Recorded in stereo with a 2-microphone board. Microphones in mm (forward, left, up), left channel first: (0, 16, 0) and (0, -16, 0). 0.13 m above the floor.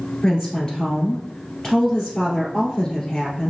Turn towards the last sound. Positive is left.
turn(degrees=25)  # may be behind; listen again after turning